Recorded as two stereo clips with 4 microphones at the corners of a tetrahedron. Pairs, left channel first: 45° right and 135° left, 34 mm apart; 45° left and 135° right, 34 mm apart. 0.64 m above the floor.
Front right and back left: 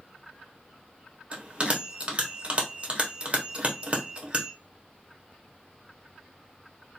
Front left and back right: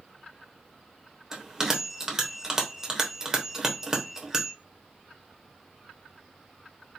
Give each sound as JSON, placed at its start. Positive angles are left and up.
{"t": 1.3, "sound": "a bell", "azimuth_deg": 160, "distance_m": 0.8}